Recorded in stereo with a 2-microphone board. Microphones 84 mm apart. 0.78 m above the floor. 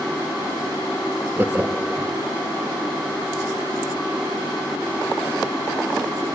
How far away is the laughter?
About 0.7 m.